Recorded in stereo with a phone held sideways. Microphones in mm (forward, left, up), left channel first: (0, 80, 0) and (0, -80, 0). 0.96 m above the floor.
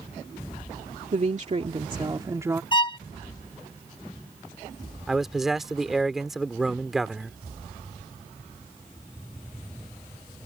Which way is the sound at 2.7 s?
30° left (ahead or behind).